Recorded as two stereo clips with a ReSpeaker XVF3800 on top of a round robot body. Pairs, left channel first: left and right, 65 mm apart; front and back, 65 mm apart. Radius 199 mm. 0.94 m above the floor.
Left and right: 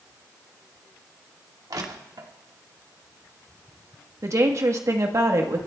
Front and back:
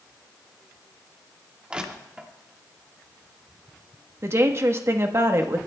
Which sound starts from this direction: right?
Crushing, at 1.7 s.